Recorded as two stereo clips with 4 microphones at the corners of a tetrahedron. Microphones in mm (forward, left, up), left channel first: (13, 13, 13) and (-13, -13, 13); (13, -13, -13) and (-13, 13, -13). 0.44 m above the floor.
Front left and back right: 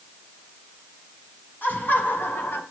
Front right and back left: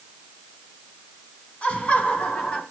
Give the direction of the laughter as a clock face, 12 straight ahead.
12 o'clock.